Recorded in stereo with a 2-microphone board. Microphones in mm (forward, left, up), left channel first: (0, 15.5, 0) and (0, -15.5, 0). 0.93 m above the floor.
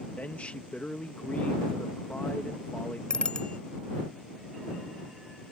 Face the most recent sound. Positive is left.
turn(degrees=25)  # may be behind; listen again after turning